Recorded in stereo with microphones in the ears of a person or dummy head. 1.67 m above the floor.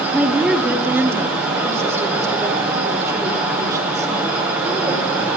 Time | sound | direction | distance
0.1 | a woman speaking | 10° right (ahead or behind) | 3 m